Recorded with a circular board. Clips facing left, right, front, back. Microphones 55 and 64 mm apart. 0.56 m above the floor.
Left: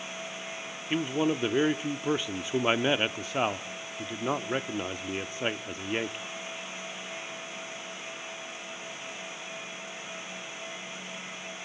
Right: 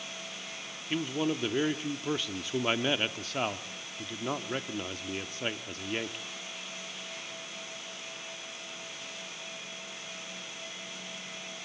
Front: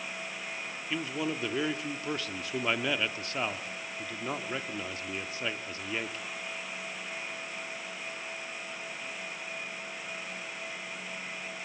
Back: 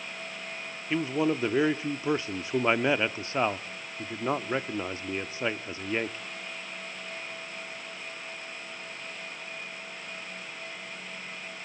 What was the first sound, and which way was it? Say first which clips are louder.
A man speaking: left 3 dB, back 7 dB; 150° left.